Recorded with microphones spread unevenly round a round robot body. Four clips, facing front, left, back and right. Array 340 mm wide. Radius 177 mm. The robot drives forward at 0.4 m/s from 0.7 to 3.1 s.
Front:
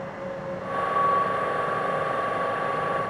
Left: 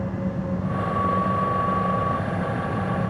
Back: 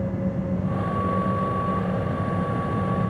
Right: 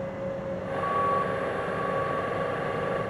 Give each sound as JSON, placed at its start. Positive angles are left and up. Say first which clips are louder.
{"t": 0.0, "sound": "an engine running", "louder": "left 3 dB, back 5 dB", "azimuth_deg": 140}